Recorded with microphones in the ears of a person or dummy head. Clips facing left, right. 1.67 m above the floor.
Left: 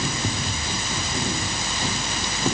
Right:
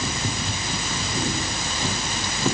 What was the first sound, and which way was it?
Only background noise.